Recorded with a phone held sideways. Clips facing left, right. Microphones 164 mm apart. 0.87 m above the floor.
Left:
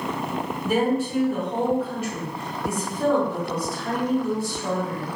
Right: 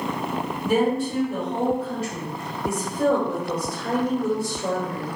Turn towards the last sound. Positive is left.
turn(degrees=-45)  # may be behind; listen again after turning